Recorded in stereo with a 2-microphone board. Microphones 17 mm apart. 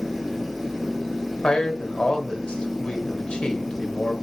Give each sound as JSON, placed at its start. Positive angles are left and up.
{"t": 1.4, "sound": "a man speaking", "side_deg": 75, "distance_m": 2.0}